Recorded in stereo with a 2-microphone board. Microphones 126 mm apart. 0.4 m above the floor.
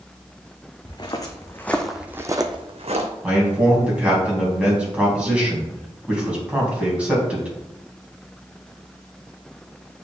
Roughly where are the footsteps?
Left.